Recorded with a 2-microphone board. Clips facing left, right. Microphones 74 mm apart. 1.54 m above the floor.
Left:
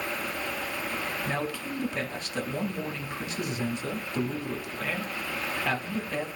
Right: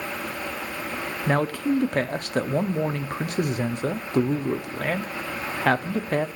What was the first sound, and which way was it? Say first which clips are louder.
A man speaking: right 9 dB; 55° right (ahead or behind).